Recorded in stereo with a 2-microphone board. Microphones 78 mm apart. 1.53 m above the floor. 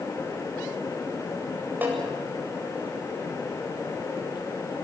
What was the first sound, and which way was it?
A snare drum, 25° right (ahead or behind).